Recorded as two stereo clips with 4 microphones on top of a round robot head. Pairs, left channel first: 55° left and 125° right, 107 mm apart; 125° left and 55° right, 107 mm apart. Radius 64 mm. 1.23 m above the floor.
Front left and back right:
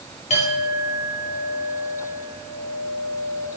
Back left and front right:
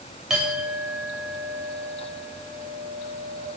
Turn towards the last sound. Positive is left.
turn(degrees=30)